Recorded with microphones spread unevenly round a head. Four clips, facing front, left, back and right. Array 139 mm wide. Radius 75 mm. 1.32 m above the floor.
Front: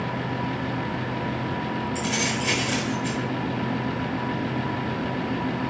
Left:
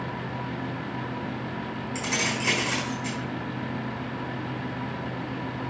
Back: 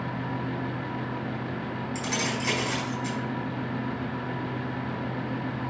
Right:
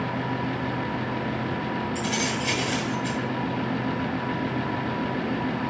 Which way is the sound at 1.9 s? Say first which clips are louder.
Right 2 dB, front 3 dB; 95° left.